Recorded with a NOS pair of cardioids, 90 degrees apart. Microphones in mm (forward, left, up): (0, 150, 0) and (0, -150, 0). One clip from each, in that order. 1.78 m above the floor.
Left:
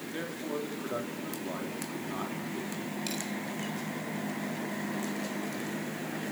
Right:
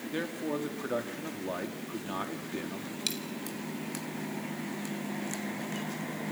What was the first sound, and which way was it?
A man speaking, 35° right.